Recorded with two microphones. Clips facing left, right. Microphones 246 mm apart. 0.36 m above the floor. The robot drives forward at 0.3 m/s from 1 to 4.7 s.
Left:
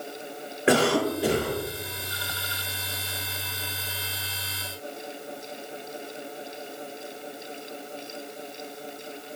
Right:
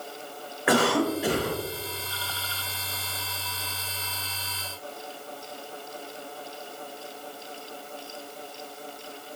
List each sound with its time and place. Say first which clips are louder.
0.7 s a cough: left 1 dB; 30° left (ahead or behind), 1.1 m; by 1.6 s 25° left (ahead or behind), 1.2 m